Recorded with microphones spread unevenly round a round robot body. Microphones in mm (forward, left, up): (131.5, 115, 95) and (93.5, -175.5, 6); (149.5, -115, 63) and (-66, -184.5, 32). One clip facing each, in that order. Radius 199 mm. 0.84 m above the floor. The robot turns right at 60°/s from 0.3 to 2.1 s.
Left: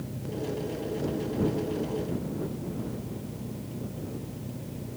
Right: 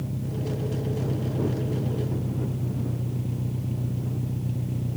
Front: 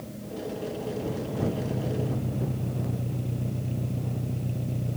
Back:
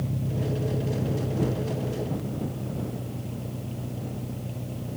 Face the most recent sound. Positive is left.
turn(degrees=-50)